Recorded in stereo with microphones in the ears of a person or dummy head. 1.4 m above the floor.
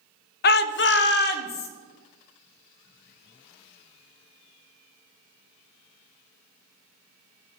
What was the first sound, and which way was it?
A shout, 45° left (ahead or behind).